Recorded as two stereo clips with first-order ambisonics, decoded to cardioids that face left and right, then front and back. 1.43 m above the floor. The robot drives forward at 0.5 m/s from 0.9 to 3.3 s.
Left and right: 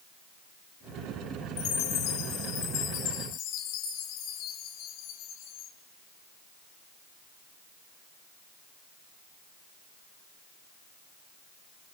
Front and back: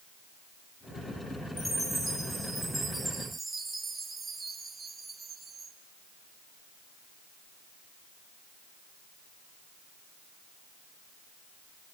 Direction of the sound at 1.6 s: 80° left.